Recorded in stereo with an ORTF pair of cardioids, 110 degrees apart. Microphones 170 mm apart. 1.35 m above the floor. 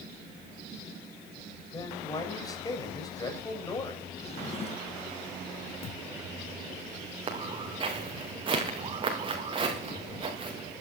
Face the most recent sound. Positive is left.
turn(degrees=-30)